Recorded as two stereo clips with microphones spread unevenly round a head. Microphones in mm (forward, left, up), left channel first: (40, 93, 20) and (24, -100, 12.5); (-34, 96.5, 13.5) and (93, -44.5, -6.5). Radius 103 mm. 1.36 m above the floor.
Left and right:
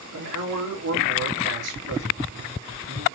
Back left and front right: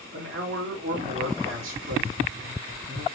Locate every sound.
0.1 s a man speaking: 105° right, 3.5 m